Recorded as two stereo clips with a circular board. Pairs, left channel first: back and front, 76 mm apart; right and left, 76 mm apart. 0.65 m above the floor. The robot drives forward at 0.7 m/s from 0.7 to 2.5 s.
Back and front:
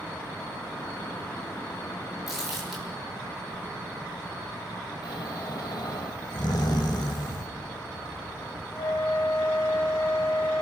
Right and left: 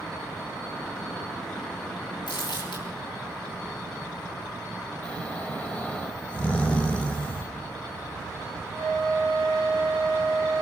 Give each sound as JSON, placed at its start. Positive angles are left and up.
{"t": 2.3, "sound": "crumpling", "azimuth_deg": -90, "distance_m": 9.0}
{"t": 5.0, "sound": "snoring", "azimuth_deg": -160, "distance_m": 2.0}
{"t": 7.4, "sound": "a thud", "azimuth_deg": 45, "distance_m": 2.5}
{"t": 8.7, "sound": "a flute", "azimuth_deg": 145, "distance_m": 6.5}